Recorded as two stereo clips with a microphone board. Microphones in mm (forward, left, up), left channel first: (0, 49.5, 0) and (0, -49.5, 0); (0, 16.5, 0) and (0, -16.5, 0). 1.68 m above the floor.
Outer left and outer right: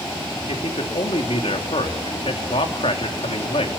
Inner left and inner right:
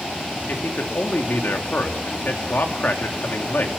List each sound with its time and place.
0.5 s a man speaking: 75° left (ahead or behind), 3 m